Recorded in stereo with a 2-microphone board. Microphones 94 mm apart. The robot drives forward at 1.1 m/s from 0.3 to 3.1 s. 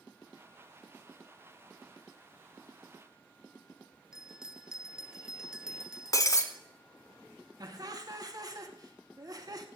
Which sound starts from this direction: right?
Laughter, at 7.6 s.